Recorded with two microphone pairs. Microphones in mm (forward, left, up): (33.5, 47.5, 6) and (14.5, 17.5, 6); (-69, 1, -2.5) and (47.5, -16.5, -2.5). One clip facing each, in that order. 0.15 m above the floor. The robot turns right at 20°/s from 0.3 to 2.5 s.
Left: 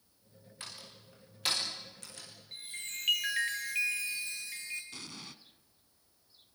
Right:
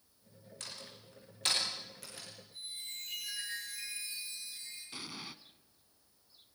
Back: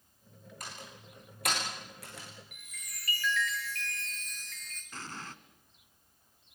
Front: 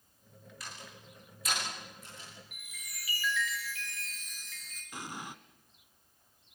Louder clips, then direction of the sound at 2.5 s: Left 4 dB, front 1 dB; 80° left.